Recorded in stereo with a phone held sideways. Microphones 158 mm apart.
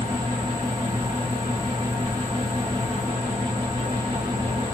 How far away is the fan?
About 1.1 m.